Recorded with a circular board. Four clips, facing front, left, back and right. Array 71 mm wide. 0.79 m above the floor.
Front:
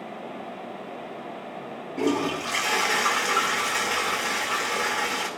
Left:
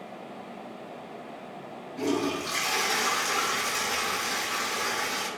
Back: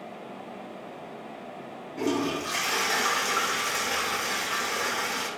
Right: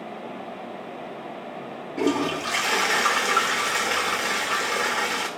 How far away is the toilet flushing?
About 2.5 m.